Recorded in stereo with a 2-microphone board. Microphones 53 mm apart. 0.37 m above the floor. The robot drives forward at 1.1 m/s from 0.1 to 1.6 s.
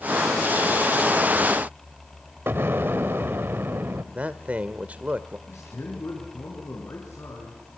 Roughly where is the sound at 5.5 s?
Left.